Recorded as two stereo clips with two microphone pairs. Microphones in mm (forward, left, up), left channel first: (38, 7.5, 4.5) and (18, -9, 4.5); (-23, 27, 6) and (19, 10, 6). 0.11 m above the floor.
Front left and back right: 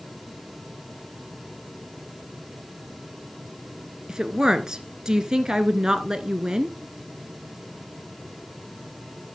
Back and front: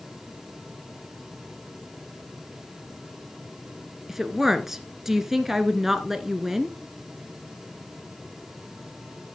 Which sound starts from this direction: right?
A woman speaking, at 4.1 s.